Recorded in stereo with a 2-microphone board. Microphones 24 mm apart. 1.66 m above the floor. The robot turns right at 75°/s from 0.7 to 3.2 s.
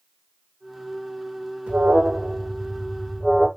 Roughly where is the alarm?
Behind right.